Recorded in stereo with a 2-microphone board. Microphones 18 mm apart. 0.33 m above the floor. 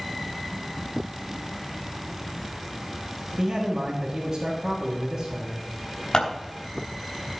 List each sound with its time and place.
3.4 s a man speaking: 30° right (ahead or behind), 2 m
6.1 s scissors: 60° left (ahead or behind), 3.5 m